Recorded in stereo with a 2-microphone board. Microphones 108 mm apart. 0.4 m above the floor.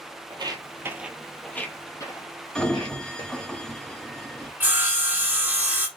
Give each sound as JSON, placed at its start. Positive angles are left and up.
{"t": 0.3, "sound": "footsteps", "side_deg": -45, "distance_m": 0.6}
{"t": 2.5, "sound": "a sliding door", "side_deg": 10, "distance_m": 0.8}
{"t": 4.6, "sound": "sawing", "side_deg": -15, "distance_m": 1.2}